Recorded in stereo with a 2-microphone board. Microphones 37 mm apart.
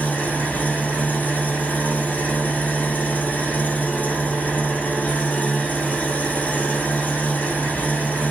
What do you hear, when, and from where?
0.0 s an engine running: 45° left (ahead or behind), 3 m